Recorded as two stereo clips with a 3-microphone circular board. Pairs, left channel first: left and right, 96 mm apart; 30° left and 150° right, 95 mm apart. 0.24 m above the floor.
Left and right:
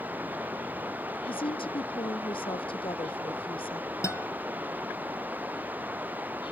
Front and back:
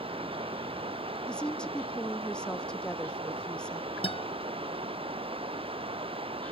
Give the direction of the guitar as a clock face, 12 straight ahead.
11 o'clock.